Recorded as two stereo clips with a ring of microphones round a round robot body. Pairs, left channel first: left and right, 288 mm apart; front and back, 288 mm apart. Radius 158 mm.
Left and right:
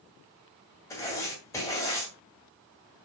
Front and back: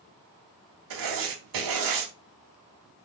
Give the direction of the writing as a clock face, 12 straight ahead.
6 o'clock.